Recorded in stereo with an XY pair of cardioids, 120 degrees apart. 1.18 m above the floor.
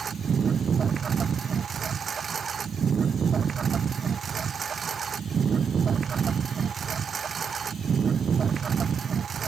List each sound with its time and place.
0.0 s a lawn mower: 35° right